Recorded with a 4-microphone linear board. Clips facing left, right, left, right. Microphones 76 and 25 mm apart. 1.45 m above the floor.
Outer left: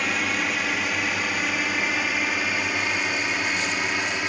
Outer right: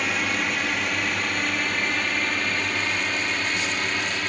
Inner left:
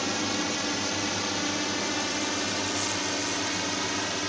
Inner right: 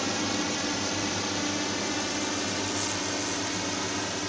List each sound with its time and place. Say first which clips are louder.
0.0 s a drone: even, even; centre (ahead or behind); by 4.3 s 10° left (ahead or behind)